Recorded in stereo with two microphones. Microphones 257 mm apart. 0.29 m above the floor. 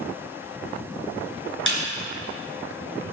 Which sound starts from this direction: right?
A snare drum, at 1.7 s.